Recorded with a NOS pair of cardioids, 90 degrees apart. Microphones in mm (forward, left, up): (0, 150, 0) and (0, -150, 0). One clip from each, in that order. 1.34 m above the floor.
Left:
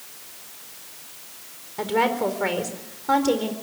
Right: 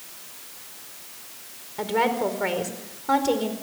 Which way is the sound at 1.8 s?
10° left.